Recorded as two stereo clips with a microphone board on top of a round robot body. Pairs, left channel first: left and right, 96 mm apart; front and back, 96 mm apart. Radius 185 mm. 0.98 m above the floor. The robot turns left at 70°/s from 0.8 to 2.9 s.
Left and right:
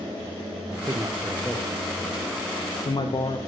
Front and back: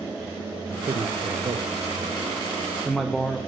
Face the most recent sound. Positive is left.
turn(degrees=85)